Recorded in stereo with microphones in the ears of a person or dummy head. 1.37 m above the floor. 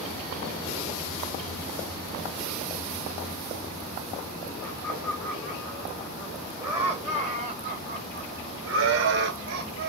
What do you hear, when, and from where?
4.6 s laughter: 10° left (ahead or behind), 2.5 m; by 9.9 s 50° right (ahead or behind), 1.5 m